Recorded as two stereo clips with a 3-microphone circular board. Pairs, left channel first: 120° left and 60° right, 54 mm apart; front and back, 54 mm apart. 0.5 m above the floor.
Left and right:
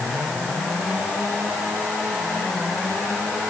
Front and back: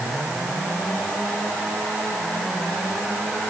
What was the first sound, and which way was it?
Only background noise.